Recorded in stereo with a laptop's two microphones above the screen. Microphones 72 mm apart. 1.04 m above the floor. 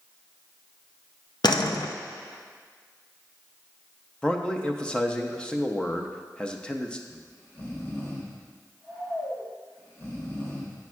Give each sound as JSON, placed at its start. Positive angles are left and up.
{"t": 1.4, "sound": "a door slam", "side_deg": 80, "distance_m": 0.5}
{"t": 4.2, "sound": "a man speaking", "side_deg": 15, "distance_m": 0.6}
{"t": 7.1, "sound": "snoring", "side_deg": 40, "distance_m": 1.2}